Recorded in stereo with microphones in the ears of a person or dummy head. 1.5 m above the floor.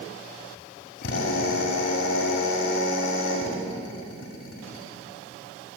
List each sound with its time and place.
1.0 s a drill: 55° left (ahead or behind), 5.5 m